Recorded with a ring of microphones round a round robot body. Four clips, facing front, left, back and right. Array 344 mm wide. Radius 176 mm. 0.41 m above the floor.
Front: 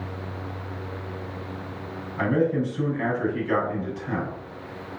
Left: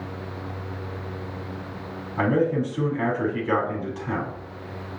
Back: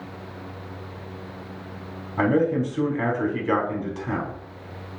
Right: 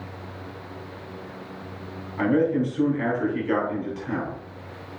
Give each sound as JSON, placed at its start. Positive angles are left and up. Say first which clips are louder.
{"t": 2.2, "sound": "a man speaking", "louder": "right 1 dB, back 2 dB", "azimuth_deg": 155, "distance_m": 4.5}